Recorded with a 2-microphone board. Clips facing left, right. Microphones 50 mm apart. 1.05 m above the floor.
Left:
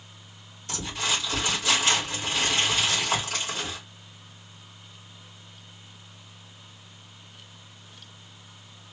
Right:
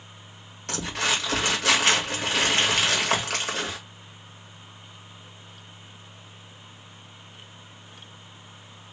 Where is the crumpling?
65° right (ahead or behind), 1.6 m.